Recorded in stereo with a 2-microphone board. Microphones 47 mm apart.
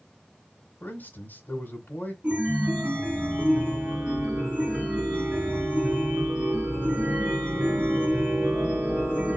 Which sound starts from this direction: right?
A chime, at 2.2 s.